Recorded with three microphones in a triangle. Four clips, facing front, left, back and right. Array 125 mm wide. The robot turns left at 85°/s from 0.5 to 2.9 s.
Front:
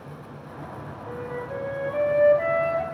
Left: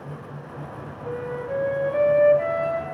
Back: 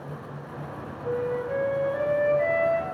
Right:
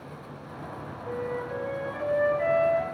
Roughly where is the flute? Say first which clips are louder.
Left 3 dB, back 6 dB; behind left.